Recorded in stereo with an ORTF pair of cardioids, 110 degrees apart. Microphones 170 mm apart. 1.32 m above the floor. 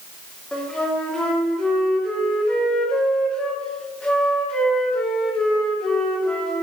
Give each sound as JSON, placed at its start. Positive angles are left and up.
{"t": 0.5, "sound": "a flute", "azimuth_deg": 5, "distance_m": 2.5}